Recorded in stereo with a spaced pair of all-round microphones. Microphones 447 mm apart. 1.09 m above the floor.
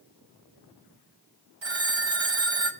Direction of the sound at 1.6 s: 80° right.